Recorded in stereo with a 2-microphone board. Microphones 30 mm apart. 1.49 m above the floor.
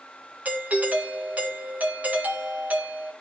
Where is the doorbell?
65° right (ahead or behind), 2 m.